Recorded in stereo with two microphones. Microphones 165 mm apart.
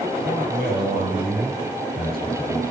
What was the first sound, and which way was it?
A man speaking, 70° right (ahead or behind).